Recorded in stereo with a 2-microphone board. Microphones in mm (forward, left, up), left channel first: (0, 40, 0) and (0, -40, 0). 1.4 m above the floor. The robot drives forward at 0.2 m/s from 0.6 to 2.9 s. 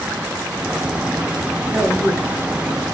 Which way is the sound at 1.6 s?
55° right (ahead or behind).